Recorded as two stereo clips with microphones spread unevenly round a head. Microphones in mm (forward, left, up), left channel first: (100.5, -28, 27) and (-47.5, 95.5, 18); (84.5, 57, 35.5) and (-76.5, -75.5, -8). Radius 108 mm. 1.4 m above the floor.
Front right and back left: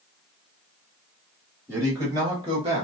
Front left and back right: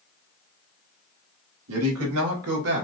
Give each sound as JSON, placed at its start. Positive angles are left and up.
{"t": 1.7, "sound": "a man speaking", "azimuth_deg": -140, "distance_m": 2.0}